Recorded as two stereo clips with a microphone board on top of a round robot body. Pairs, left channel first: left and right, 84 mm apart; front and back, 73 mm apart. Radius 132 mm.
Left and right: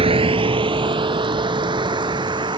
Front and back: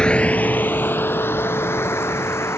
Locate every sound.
0.0 s a vehicle: 75° right; by 2.6 s 55° right